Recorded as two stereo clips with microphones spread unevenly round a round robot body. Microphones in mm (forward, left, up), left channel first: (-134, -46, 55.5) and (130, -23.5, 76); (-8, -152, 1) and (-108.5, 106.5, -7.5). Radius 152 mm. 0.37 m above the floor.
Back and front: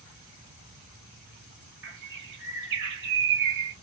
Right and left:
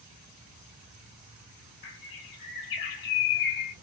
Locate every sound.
1.8 s a bird: 40° right, 0.7 m